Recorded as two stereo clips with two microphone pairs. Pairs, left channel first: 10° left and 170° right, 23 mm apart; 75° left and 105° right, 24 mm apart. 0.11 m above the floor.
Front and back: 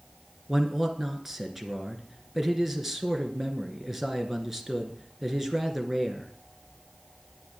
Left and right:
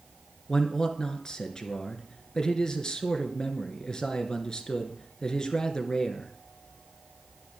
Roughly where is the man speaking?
Behind left.